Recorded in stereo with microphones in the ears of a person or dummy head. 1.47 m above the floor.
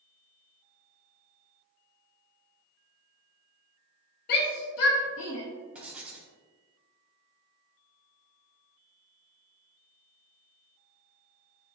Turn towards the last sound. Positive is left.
turn(degrees=-5)  # may be behind; listen again after turning